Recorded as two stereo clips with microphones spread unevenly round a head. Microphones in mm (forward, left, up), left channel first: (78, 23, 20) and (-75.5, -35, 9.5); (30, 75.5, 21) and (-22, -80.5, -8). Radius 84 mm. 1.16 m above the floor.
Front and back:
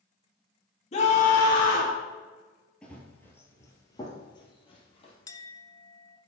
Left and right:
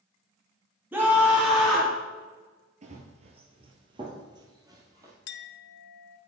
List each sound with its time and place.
0.9 s a scream: 30° right, 2.5 m; by 2.0 s 15° right, 3 m
2.8 s running footsteps: 60° right, 1.7 m; by 5.1 s 35° right, 2.5 m
5.3 s a clink: 90° left, 0.5 m